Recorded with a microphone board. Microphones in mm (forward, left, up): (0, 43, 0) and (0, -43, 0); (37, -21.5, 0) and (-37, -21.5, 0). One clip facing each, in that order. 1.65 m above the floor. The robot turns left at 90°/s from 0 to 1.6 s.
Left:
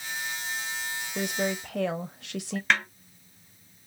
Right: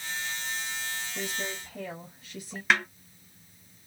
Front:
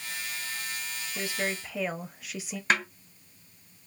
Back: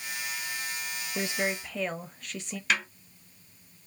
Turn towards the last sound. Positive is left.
turn(degrees=-10)